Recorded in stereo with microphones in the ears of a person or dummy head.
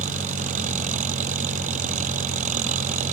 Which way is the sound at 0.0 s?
40° right (ahead or behind).